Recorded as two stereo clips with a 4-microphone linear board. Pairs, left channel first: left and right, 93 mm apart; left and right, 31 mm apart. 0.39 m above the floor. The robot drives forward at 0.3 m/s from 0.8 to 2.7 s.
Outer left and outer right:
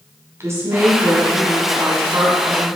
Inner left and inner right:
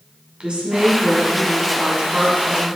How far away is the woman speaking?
About 2.5 m.